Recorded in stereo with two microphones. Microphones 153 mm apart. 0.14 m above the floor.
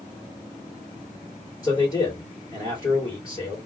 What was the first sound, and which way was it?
A man speaking, 25° left (ahead or behind).